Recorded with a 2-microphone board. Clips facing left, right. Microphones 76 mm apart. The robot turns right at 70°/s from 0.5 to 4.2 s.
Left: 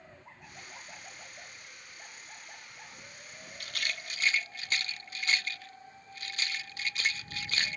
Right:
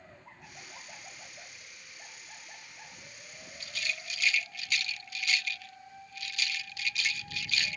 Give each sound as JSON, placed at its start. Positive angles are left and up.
{"t": 3.6, "sound": "a rattle", "side_deg": 60}